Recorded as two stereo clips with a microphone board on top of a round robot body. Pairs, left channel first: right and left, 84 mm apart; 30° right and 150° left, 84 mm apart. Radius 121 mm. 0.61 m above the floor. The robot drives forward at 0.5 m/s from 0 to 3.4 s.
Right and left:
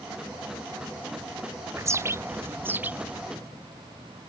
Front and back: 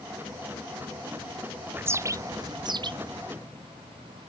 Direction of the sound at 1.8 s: 105° left.